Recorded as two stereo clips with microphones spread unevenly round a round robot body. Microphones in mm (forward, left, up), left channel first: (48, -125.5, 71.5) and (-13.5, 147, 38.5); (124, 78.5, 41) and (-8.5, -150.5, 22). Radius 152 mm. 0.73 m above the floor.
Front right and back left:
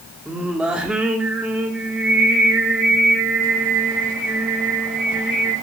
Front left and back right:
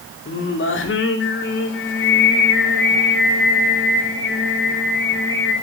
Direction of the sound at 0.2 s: 20° left.